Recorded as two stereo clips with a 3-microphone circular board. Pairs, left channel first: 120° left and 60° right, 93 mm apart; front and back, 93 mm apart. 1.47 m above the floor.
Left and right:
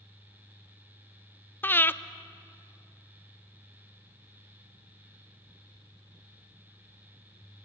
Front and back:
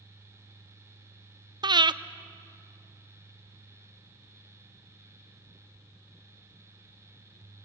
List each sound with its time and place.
1.6 s breathing: straight behind, 0.5 m